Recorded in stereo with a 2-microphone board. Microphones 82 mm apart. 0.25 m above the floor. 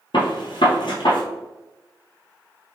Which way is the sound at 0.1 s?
75° left (ahead or behind).